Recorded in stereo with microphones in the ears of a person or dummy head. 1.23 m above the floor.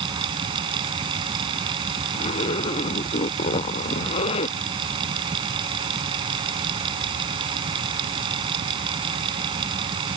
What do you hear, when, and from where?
0.0 s a fan: 30° right (ahead or behind)
2.1 s a zipper: 35° left (ahead or behind)